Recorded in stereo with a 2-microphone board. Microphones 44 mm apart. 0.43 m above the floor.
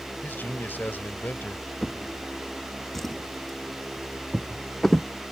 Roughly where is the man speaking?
Left.